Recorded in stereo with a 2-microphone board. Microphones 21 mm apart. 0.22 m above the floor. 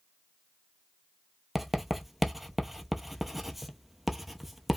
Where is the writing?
10° right (ahead or behind), 0.9 m.